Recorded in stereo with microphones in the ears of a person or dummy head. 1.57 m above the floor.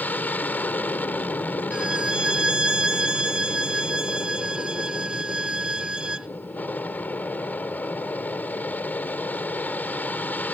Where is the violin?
5° right (ahead or behind).